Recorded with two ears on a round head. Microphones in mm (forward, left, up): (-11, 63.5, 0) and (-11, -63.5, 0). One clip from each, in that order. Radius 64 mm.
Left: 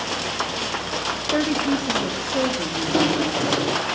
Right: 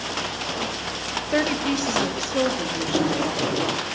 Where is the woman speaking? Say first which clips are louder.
Even; 85° right, 2 m; by 3.8 s 60° right (ahead or behind), 5.5 m.